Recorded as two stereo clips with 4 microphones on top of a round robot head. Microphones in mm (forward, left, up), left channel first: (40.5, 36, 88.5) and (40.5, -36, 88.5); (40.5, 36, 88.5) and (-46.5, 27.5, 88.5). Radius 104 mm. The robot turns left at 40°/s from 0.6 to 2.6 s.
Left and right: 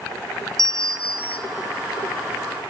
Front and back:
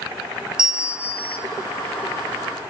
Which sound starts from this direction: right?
A bell, at 0.6 s.